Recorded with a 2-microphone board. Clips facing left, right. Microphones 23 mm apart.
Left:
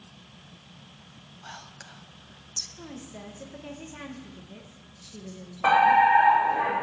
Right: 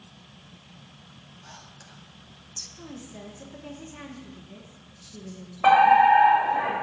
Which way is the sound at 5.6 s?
15° right (ahead or behind).